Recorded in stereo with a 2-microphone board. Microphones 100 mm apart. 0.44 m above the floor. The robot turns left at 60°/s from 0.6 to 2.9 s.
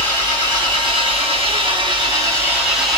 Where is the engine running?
45° right, 2.5 m; by 3.0 s 175° left, 2.5 m.